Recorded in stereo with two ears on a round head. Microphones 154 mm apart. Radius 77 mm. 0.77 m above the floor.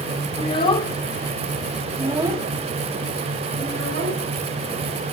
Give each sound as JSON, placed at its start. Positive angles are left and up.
{"t": 0.4, "sound": "a child speaking", "side_deg": 35, "distance_m": 1.4}